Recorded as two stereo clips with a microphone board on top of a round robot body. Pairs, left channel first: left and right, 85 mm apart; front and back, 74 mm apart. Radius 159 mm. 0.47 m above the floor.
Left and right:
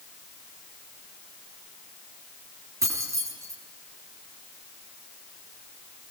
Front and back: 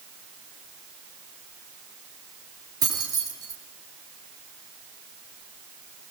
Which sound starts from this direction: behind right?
Keys jangling, at 2.8 s.